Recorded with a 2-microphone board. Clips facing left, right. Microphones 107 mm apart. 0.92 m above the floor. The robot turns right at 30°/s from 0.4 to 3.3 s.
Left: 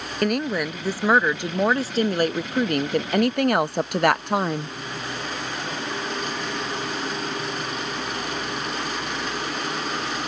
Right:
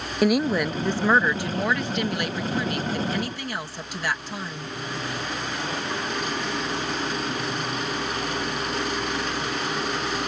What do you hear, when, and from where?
0.2 s a woman speaking: 5° right; by 4.8 s 80° left